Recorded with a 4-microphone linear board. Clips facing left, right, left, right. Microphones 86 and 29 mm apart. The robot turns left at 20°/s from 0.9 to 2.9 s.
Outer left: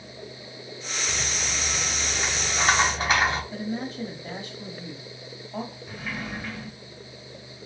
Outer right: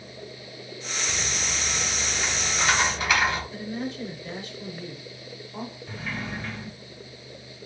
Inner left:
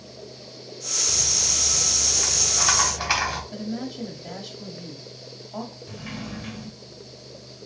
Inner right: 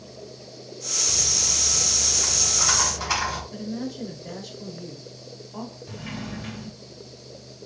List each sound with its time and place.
1.1 s a rattle: 145° left, 1.6 m; by 3.4 s 110° left, 1.6 m
3.5 s a woman speaking: 50° left (ahead or behind), 1.9 m
5.9 s a sliding door: 10° left (ahead or behind), 1.2 m